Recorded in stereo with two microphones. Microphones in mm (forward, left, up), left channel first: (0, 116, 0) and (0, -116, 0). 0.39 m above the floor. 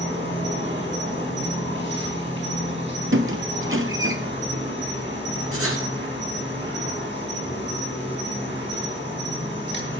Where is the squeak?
60° right (ahead or behind), 0.9 m.